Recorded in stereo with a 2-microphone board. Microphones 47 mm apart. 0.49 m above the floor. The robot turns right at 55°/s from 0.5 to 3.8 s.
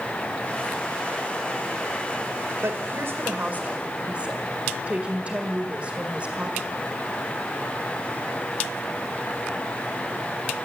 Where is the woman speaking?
95° right, 1.8 m; by 6.9 s 30° right, 1.8 m.